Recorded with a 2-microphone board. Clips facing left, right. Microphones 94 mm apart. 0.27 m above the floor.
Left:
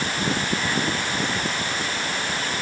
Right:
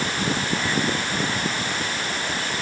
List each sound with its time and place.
Only background noise.